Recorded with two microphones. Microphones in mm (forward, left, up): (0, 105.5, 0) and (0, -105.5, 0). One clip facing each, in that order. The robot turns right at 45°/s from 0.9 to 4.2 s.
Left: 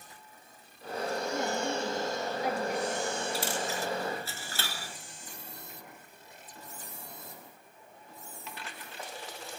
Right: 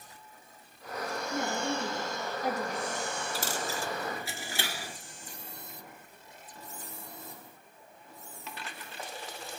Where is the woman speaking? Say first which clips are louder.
Right 2 dB; 105° right, 3 m; by 2.8 s 35° right, 3 m.